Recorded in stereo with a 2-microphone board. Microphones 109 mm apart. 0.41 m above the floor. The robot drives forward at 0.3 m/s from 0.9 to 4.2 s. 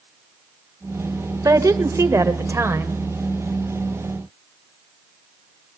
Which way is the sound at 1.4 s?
30° right (ahead or behind).